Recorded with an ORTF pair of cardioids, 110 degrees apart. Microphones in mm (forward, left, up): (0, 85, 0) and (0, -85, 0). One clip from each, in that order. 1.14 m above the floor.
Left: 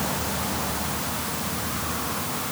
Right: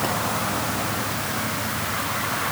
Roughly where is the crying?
No crying in this recording.